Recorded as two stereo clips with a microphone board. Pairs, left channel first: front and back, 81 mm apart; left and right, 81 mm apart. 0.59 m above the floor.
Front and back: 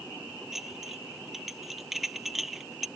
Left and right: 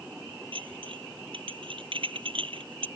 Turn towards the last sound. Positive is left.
turn(degrees=-90)